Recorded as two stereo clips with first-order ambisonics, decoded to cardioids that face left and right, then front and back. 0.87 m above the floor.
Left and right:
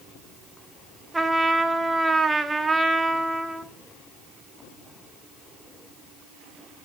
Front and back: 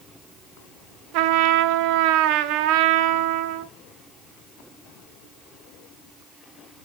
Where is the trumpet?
170° right, 0.7 m.